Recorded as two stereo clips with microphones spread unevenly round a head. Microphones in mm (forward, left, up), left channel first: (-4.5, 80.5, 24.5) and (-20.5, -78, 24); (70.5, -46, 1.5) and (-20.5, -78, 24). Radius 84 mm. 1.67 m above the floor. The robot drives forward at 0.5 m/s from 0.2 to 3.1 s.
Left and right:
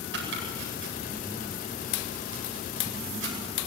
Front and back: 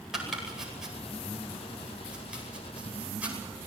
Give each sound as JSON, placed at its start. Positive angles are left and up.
{"t": 0.1, "sound": "chopping", "azimuth_deg": -75, "distance_m": 9.5}